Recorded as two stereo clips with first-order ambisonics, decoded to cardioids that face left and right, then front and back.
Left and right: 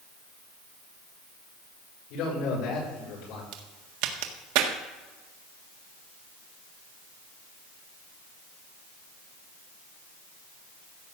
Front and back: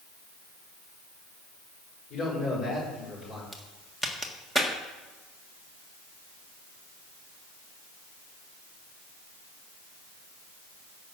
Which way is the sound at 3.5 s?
85° right.